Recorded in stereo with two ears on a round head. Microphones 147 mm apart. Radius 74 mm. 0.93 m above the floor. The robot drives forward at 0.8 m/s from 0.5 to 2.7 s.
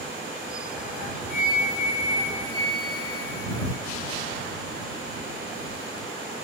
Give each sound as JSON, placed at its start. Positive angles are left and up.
{"t": 1.3, "sound": "a flute", "side_deg": 55, "distance_m": 1.7}